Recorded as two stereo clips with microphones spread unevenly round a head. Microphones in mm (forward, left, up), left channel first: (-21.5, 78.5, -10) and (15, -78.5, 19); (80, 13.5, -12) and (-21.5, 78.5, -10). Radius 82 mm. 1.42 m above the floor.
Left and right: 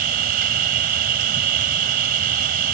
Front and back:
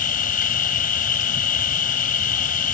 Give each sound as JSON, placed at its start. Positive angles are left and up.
{"t": 0.0, "sound": "an insect", "azimuth_deg": -40}